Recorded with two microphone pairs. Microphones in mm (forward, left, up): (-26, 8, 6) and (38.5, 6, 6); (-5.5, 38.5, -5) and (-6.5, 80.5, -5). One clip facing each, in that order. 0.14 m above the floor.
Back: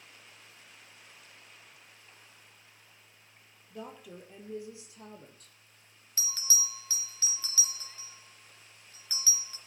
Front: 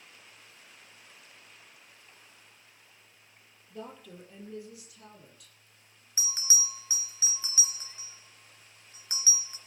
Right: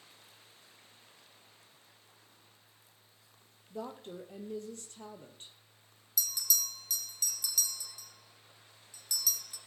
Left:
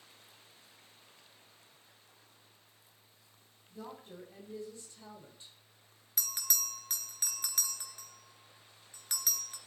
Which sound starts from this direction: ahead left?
A bell, at 6.2 s.